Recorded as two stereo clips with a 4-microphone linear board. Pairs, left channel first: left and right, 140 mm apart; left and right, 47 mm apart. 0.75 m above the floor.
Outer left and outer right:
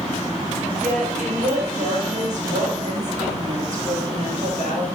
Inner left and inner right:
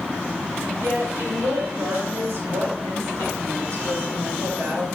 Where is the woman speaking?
75° right (ahead or behind), 3.5 m.